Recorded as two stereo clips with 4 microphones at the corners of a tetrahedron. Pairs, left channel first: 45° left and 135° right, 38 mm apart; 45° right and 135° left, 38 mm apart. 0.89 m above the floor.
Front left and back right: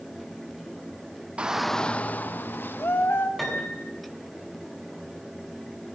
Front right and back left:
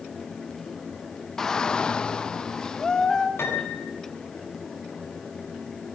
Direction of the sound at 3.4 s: 40° right.